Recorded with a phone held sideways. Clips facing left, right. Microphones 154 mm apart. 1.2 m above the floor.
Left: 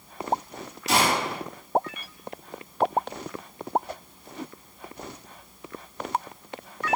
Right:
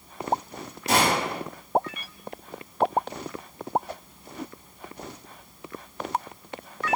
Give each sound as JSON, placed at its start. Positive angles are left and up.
{"t": 0.9, "sound": "a gunshot", "side_deg": -50, "distance_m": 5.5}